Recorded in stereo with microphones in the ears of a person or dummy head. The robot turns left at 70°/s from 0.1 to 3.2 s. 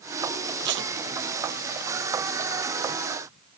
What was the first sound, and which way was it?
Tape being pulled, 60° right (ahead or behind).